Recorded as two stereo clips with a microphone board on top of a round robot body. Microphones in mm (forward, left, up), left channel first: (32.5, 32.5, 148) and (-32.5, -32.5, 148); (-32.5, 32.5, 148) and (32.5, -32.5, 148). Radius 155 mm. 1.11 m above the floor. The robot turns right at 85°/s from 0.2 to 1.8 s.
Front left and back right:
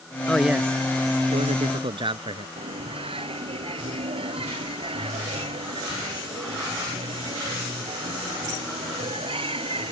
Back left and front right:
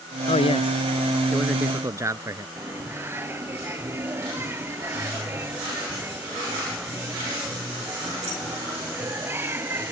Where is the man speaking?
125° left; by 2.5 s 105° right.